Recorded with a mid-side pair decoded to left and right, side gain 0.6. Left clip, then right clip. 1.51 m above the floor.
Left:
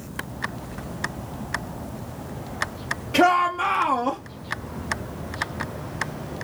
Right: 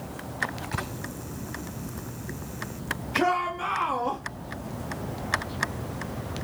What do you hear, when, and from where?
3.1 s a shout: 65° left, 1.2 m; by 4.2 s 25° left, 1.2 m